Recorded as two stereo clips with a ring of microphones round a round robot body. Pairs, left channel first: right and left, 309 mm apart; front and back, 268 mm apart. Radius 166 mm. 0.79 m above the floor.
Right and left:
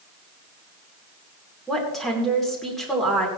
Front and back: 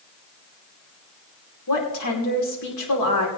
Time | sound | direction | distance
1.7 | a woman speaking | straight ahead | 2.5 m